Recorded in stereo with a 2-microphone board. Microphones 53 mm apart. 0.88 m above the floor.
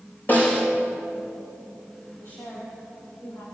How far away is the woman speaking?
About 4.5 m.